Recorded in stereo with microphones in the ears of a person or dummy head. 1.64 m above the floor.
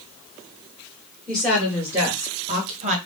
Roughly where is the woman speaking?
Centre.